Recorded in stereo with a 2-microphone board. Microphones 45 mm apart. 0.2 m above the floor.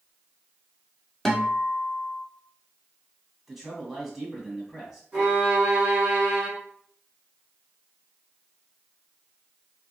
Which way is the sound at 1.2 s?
5° left (ahead or behind).